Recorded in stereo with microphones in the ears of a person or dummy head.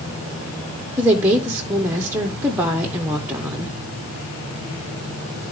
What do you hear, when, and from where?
1.0 s a woman speaking: 15° right (ahead or behind), 0.6 m